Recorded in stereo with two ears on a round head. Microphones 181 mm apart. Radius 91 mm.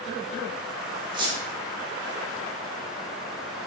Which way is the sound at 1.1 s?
25° right (ahead or behind).